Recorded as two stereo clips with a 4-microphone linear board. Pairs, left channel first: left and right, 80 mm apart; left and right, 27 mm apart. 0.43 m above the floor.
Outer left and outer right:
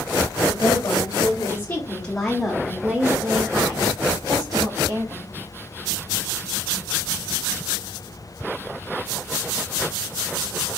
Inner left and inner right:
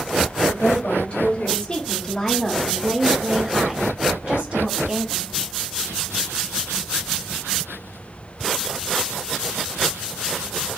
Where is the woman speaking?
50° left (ahead or behind), 1.3 m; by 5.3 s 55° right (ahead or behind), 1.7 m.